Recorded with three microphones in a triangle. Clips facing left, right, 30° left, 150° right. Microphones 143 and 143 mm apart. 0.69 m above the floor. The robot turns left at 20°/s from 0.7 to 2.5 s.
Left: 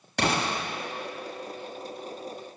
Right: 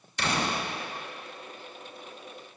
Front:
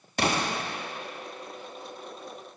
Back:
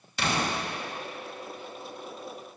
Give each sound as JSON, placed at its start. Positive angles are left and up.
{"t": 0.2, "sound": "an explosion", "azimuth_deg": 70, "distance_m": 3.5}